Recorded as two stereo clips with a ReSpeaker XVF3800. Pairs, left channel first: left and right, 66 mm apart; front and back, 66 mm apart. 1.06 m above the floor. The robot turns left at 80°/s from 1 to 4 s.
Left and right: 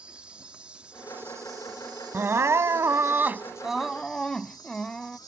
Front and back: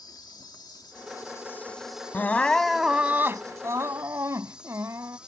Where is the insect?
15° right; by 5.3 s 105° left.